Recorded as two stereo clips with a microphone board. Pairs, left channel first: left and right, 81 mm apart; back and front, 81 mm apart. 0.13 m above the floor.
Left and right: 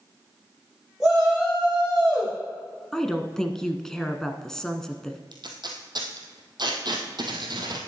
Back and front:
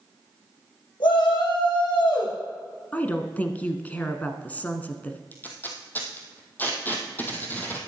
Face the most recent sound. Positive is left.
turn(degrees=-115)